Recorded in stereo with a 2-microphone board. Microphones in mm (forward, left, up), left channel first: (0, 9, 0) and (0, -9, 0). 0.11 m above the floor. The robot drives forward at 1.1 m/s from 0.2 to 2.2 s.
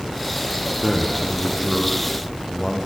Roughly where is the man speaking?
Centre.